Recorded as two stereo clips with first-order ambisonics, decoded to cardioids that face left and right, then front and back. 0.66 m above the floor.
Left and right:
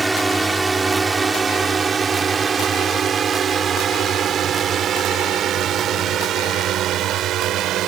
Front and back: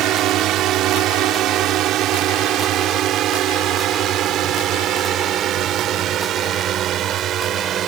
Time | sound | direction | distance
0.0 | a drone | 170° right | ?